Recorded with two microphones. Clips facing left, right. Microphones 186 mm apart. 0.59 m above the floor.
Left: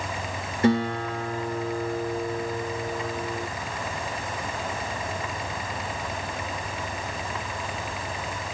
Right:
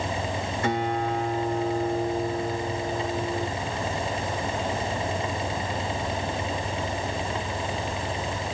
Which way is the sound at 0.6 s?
35° left (ahead or behind).